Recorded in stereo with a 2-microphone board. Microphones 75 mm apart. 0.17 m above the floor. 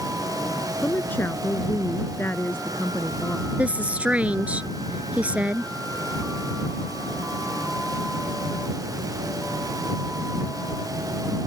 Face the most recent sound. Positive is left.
turn(degrees=-15)  # may be behind; listen again after turning